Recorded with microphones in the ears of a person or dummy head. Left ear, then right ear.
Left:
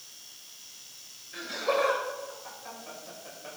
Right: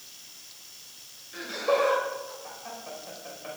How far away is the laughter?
About 5.5 m.